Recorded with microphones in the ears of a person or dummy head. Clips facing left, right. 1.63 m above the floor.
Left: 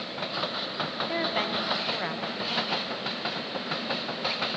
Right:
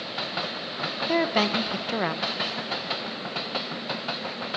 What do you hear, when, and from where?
1.1 s a woman speaking: 60° right (ahead or behind), 1.2 m